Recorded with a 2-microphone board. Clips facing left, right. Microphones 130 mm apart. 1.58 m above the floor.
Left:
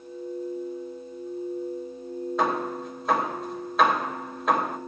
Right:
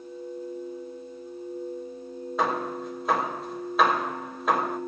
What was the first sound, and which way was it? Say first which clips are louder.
Hammering: even; centre (ahead or behind).